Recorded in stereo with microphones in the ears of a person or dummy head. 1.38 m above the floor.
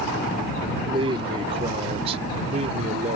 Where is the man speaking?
25° right (ahead or behind); by 3.2 s 35° right (ahead or behind).